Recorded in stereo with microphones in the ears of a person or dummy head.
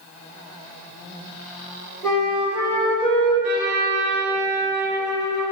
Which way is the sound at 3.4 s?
60° right (ahead or behind).